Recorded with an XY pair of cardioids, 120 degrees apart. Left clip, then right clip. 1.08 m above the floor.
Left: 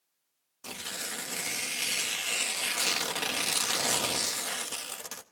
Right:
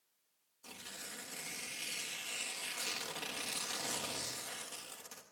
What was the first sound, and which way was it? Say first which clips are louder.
Tearing paper: left 11 dB; 60° left.